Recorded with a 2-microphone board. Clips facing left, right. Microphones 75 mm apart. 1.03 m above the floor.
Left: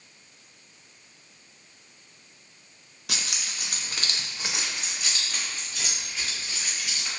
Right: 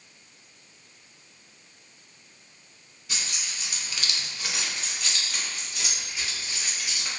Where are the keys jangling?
85° left, 0.6 m; by 7.1 s 15° right (ahead or behind), 1.8 m.